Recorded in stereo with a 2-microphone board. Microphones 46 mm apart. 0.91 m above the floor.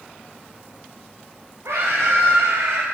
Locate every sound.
1.6 s a scream: 70° right (ahead or behind), 4 m; by 2.8 s 85° right, 4.5 m